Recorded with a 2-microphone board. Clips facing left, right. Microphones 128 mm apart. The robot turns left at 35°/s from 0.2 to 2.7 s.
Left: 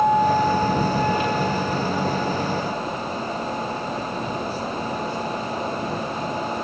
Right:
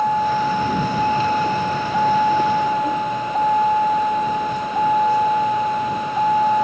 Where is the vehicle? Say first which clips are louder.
Left 1 dB; 5° left; by 6.7 s 85° right.